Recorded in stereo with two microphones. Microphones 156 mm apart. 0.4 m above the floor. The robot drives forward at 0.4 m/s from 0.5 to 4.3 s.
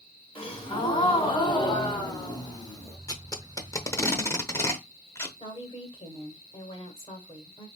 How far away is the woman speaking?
About 1.6 m.